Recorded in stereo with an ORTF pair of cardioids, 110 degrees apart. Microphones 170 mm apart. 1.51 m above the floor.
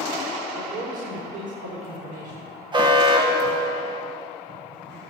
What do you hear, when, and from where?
0.5 s a man speaking: 60° right, 4 m
2.7 s an alarm: 25° right, 1.4 m